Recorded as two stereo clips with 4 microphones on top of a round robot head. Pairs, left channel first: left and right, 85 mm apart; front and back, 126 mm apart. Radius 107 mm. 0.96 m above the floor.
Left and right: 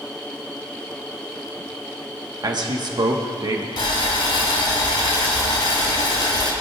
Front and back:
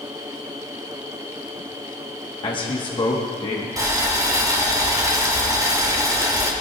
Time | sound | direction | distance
2.4 | a man speaking | 55° right | 1.4 m
3.8 | boiling | 120° left | 2.5 m